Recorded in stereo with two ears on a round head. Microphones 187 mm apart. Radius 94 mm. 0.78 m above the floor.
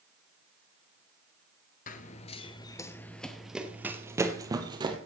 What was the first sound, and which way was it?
Running footsteps, 40° left (ahead or behind).